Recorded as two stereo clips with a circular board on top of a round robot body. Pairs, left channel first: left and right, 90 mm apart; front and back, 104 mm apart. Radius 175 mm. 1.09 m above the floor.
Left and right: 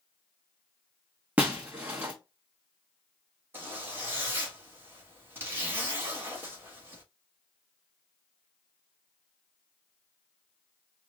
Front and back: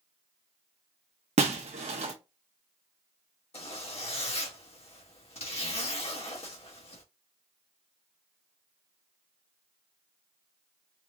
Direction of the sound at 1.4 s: 165° right.